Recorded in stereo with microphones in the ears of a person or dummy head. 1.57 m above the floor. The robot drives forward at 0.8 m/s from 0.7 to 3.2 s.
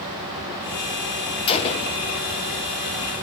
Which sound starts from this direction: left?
A gunshot, at 1.5 s.